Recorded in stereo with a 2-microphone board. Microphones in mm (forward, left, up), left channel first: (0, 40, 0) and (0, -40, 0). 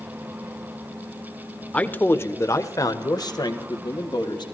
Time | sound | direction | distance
1.7 | a man speaking | 15° left (ahead or behind) | 0.9 m